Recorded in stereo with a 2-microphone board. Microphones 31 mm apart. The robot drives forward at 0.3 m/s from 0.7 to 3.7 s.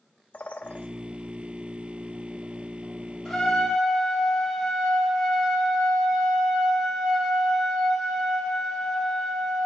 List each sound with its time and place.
0.3 s a bird: 55° left (ahead or behind), 0.6 m
3.2 s a trumpet: 5° left (ahead or behind), 1.8 m